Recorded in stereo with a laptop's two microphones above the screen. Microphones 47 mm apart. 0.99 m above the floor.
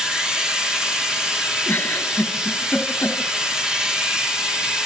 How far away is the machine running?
About 3 m.